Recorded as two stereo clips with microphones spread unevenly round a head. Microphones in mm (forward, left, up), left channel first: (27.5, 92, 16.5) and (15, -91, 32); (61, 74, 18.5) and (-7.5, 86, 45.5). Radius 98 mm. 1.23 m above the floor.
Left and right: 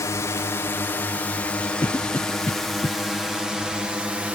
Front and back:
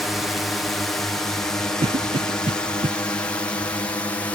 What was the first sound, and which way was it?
A drone, 35° left.